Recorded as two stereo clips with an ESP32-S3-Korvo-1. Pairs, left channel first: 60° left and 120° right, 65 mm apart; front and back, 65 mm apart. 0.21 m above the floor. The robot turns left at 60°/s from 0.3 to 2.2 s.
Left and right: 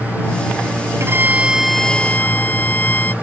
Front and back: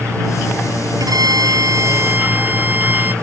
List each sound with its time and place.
1.0 s a violin: 165° right; by 3.1 s 120° left